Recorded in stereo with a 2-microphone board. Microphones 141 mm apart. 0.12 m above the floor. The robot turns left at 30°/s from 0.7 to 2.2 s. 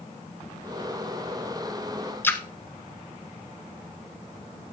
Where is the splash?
15° left (ahead or behind), 1.1 m.